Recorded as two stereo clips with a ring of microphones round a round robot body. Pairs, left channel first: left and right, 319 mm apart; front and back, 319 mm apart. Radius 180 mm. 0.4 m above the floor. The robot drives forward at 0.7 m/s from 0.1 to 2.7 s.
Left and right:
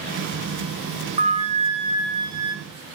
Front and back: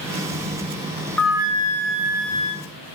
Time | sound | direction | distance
1.2 | a flute | 75° right | 0.6 m